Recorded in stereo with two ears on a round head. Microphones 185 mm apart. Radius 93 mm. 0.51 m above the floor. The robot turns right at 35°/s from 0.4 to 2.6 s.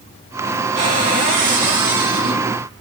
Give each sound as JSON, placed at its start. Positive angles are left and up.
{"t": 0.8, "sound": "a cupboard door", "azimuth_deg": -145, "distance_m": 3.5}